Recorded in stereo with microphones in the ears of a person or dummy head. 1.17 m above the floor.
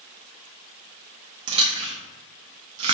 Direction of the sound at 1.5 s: 30° right (ahead or behind).